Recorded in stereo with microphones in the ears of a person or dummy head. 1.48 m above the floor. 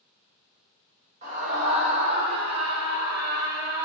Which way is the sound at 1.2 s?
45° right (ahead or behind).